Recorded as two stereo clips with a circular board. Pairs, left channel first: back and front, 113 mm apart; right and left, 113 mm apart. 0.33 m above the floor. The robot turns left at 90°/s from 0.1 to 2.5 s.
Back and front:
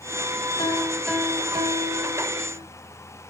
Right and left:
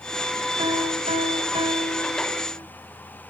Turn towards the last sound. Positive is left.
turn(degrees=-40)